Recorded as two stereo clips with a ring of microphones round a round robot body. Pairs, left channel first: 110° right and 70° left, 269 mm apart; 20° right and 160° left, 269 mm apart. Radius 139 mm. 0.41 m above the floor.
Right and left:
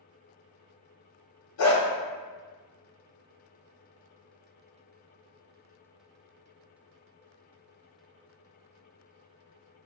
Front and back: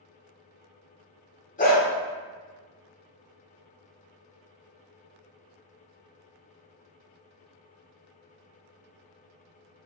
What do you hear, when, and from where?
1.6 s a dog barking: 85° right, 1.0 m